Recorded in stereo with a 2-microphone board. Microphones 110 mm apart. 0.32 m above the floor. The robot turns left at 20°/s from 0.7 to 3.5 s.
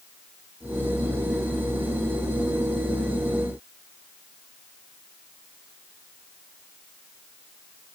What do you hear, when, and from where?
Only background noise.